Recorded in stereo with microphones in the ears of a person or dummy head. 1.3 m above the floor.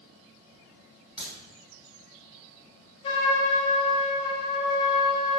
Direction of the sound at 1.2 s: 5° right (ahead or behind).